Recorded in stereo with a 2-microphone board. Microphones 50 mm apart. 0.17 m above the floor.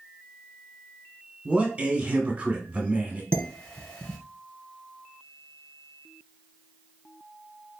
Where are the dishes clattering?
20° left (ahead or behind), 1.5 m.